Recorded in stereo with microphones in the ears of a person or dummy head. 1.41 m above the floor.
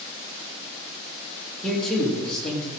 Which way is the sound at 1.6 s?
5° left (ahead or behind).